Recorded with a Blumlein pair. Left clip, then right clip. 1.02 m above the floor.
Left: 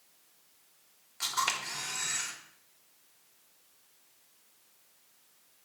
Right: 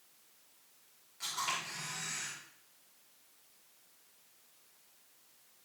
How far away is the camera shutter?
About 1.7 m.